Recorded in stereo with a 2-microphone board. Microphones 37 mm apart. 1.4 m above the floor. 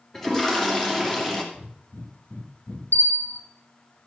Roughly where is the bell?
Left.